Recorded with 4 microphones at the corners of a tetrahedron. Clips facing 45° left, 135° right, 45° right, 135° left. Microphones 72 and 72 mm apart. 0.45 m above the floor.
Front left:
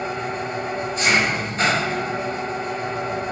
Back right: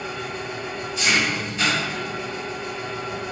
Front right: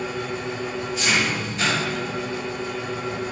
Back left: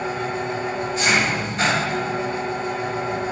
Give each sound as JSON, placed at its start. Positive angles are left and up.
{"t": 0.0, "sound": "an engine running", "azimuth_deg": 90, "distance_m": 1.7}